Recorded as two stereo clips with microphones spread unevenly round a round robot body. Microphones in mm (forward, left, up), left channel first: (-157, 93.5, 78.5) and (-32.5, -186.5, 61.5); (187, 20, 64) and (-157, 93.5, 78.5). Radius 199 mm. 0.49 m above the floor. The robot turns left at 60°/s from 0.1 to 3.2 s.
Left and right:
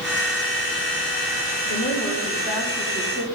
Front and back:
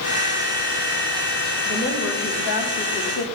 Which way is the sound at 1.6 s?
55° left.